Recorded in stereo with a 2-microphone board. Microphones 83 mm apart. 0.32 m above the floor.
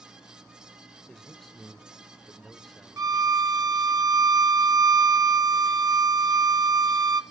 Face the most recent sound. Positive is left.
turn(degrees=-45)  # may be behind; listen again after turning